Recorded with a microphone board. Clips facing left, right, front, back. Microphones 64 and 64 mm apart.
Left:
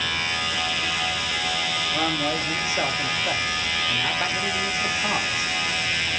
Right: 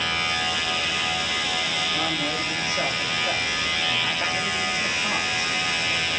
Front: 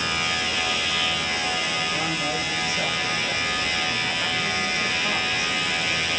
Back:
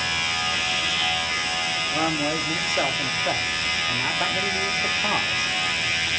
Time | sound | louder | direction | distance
1.9 | a man speaking | left 2 dB, back 2 dB | 160° left | 1.8 m